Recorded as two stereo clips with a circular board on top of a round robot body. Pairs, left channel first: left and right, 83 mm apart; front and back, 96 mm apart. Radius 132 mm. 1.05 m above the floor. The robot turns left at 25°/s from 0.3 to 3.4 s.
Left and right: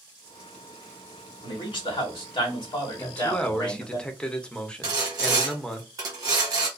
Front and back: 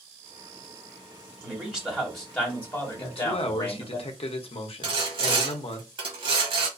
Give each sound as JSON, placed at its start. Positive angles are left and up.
{"t": 1.4, "sound": "a man speaking", "azimuth_deg": 105, "distance_m": 1.5}
{"t": 3.0, "sound": "a man speaking", "azimuth_deg": 20, "distance_m": 0.7}
{"t": 4.8, "sound": "sawing", "azimuth_deg": -140, "distance_m": 0.7}